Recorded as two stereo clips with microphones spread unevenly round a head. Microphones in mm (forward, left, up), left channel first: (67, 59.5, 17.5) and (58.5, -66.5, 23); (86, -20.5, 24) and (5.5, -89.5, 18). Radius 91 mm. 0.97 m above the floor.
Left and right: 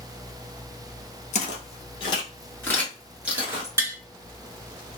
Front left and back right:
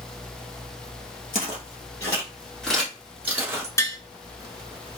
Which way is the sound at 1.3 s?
80° left.